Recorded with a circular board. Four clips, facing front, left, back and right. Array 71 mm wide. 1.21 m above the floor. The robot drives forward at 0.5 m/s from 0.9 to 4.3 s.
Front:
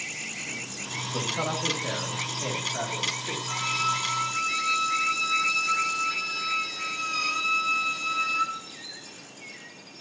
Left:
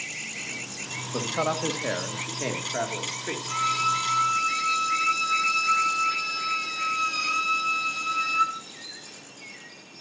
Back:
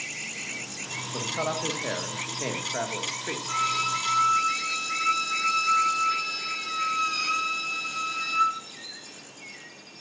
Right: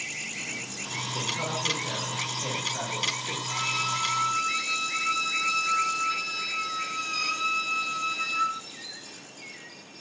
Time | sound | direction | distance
1.1 | a man speaking | 95° left | 1.2 m
3.5 | a violin | 150° left | 4 m